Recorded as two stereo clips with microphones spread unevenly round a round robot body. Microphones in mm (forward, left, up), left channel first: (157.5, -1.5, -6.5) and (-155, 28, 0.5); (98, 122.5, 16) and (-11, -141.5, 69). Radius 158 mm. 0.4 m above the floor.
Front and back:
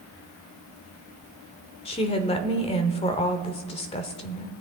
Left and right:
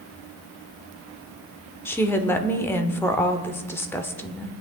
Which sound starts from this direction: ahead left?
A woman speaking, at 1.9 s.